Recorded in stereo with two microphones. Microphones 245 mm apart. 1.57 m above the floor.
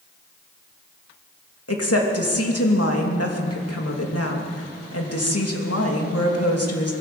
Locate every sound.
1.7 s a woman speaking: 75° left (ahead or behind), 2.5 m